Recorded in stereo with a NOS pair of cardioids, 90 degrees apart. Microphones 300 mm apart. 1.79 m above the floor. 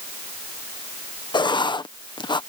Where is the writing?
15° left.